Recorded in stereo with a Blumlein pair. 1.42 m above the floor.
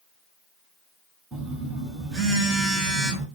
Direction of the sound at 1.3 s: 15° right.